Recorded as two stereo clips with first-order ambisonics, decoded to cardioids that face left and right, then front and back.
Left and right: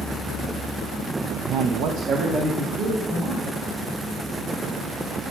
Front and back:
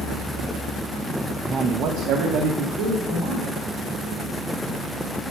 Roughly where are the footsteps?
No footsteps in this recording.